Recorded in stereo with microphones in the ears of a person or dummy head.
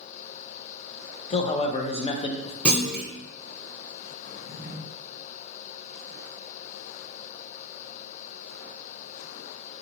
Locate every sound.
1.3 s a man speaking: 30° left (ahead or behind), 0.5 m
2.6 s a clunk: 5° left (ahead or behind), 0.7 m
4.2 s a drawer: 70° left (ahead or behind), 2 m